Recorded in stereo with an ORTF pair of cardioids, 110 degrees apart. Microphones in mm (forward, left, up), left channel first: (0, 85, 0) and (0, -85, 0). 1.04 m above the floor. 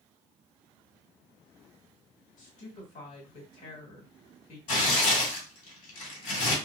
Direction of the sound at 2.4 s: 55° left.